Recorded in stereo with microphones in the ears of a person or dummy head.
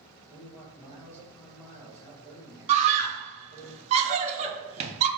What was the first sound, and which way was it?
A man speaking, 15° right (ahead or behind).